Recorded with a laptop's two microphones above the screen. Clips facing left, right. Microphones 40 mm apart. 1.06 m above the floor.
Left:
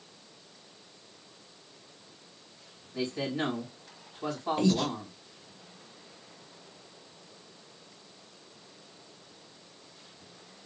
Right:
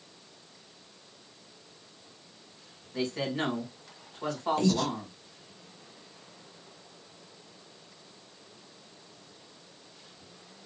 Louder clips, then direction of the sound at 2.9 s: Right 1 dB; 65° right (ahead or behind).